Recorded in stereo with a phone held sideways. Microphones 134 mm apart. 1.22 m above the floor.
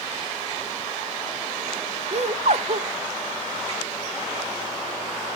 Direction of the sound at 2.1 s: 55° right (ahead or behind).